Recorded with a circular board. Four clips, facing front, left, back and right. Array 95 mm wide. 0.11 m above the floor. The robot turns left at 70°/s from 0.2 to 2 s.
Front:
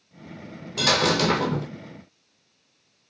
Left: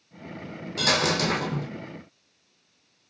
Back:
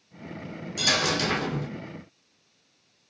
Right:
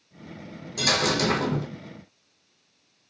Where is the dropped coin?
25° left, 0.8 m; by 1.7 s 35° right, 0.8 m.